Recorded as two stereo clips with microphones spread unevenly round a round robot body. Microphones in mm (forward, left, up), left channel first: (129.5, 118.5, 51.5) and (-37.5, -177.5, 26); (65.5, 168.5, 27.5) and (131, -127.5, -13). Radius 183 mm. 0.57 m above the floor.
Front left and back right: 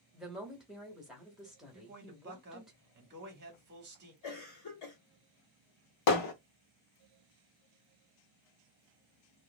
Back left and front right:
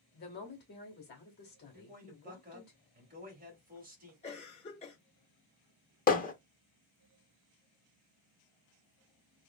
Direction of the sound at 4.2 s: 30° left.